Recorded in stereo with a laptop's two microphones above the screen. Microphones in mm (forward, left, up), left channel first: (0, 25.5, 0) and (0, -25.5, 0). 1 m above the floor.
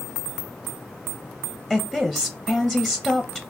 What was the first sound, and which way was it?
A woman speaking, 15° left (ahead or behind).